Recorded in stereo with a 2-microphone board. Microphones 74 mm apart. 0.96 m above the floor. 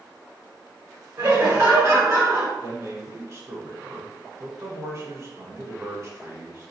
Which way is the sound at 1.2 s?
45° right (ahead or behind).